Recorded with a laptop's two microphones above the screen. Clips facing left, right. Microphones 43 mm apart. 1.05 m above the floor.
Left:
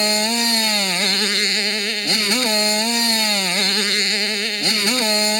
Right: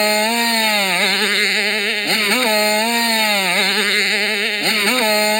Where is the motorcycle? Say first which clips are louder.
Right 4 dB; 20° right (ahead or behind).